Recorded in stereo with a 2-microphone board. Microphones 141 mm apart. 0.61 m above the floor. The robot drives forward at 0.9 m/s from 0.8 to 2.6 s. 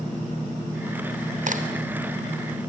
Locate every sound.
1.5 s a crack: 65° right (ahead or behind), 3 m